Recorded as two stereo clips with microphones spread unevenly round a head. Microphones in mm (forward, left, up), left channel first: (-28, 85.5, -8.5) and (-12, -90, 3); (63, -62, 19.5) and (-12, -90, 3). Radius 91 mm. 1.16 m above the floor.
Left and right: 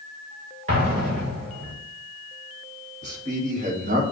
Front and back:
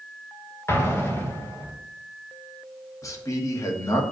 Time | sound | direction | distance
0.7 | an explosion | 30° right | 2 m
3.0 | a man speaking | 30° right | 1.8 m